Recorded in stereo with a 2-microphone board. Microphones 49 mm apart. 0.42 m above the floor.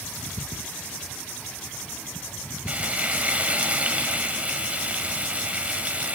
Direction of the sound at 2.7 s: 25° right (ahead or behind).